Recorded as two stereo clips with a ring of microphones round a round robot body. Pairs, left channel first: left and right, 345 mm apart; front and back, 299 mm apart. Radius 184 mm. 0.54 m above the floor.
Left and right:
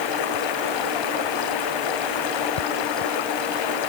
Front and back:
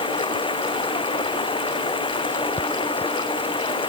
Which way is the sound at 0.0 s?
75° left.